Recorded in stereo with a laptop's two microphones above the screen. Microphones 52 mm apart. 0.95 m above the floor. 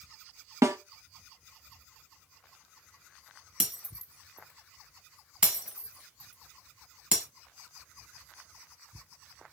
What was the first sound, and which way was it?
A snare drum, 75° right (ahead or behind).